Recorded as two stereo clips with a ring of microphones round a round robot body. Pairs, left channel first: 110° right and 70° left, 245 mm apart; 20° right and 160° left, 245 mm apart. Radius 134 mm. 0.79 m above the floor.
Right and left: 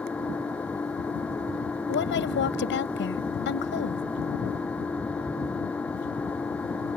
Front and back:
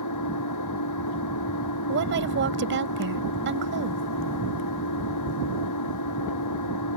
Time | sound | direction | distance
0.0 | an engine running | 25° right | ?
1.9 | a woman speaking | 155° right | ?